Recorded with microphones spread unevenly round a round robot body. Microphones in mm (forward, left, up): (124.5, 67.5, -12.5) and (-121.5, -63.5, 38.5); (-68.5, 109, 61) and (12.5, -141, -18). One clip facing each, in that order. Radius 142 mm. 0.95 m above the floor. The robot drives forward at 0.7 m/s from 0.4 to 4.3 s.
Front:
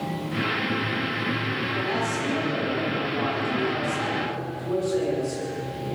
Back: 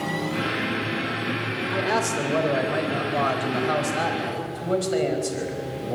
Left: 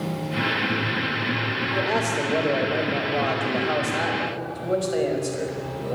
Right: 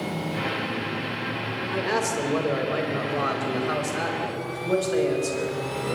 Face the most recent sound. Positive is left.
turn(degrees=-150)